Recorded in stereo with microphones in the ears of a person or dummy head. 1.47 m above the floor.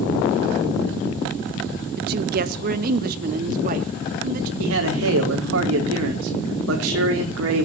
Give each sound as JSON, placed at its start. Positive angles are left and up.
{"t": 2.0, "sound": "a woman speaking", "side_deg": -55, "distance_m": 1.1}
{"t": 4.6, "sound": "a man speaking", "side_deg": -85, "distance_m": 3.5}